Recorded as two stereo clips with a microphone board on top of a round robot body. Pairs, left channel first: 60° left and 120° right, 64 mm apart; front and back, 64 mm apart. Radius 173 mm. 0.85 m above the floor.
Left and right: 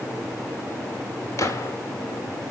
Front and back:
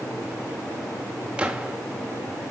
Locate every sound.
1.4 s a gunshot: 100° left, 1.6 m